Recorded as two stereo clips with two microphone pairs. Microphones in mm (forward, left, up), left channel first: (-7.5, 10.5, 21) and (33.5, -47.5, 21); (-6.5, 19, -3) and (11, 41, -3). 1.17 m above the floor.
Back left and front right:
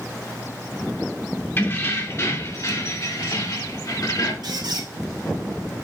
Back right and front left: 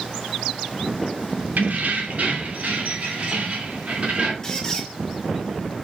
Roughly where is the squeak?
Ahead right.